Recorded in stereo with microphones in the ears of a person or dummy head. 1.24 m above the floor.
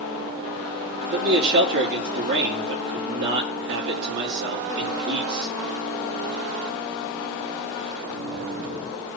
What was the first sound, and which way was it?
A man speaking, 60° right (ahead or behind).